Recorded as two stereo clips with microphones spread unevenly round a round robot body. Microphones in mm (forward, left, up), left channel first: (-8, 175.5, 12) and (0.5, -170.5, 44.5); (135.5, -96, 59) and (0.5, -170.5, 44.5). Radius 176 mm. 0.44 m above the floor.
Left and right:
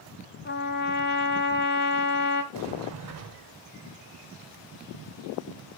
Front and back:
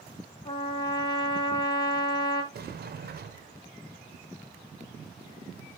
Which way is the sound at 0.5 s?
85° left.